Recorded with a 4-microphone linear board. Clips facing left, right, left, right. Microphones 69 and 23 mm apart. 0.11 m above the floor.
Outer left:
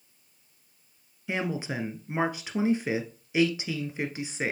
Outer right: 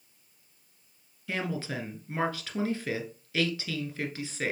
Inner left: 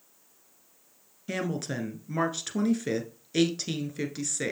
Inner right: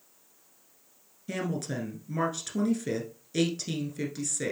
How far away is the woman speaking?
About 1.3 m.